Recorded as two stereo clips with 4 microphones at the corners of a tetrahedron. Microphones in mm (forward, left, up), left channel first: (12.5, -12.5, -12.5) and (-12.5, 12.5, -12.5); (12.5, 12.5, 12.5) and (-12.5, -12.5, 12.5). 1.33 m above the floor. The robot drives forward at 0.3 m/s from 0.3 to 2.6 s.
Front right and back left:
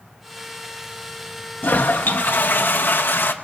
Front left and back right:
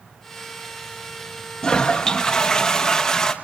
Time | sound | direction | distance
1.6 | a toilet flushing | 20° right | 1.4 m